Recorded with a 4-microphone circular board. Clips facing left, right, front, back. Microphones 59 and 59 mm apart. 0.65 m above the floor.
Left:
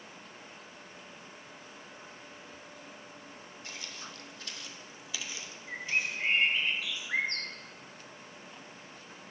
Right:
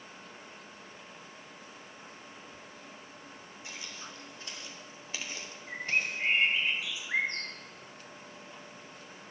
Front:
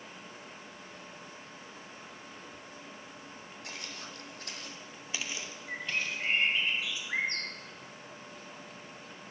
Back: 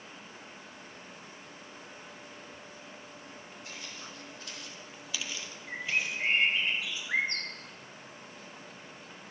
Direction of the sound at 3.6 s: 15° right.